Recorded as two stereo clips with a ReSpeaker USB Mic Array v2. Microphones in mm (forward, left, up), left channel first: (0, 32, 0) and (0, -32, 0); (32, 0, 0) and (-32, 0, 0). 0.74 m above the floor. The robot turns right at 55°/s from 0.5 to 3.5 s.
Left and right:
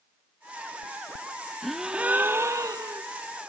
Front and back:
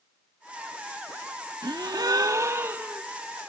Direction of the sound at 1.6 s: Straight behind.